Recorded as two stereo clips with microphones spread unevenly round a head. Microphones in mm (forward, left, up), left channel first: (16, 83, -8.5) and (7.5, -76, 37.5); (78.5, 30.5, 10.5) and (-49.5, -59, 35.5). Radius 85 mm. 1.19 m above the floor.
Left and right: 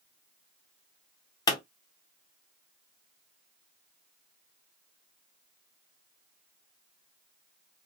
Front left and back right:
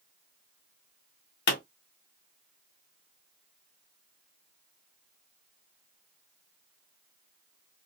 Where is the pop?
25° left, 1.5 m.